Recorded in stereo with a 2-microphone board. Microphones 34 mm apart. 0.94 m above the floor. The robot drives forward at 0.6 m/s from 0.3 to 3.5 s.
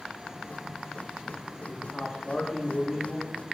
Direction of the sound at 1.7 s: 40° left (ahead or behind).